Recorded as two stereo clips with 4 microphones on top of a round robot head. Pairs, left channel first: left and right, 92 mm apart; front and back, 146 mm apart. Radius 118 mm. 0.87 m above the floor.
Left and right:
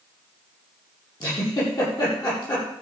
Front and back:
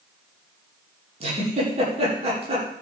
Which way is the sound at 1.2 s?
135° left.